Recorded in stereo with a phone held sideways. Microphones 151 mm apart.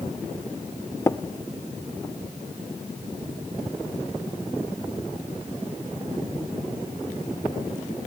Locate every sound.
1.1 s tapping: 20° left (ahead or behind), 0.6 m